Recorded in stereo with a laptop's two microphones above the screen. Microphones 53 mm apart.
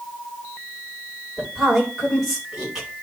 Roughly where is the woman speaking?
Centre.